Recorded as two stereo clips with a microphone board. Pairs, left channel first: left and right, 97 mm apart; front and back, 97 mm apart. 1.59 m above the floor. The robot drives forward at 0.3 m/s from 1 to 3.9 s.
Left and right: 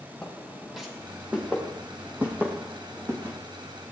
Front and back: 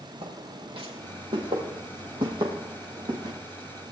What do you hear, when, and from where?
0.2 s footsteps: 175° left, 4.5 m; by 3.4 s 155° right, 5.5 m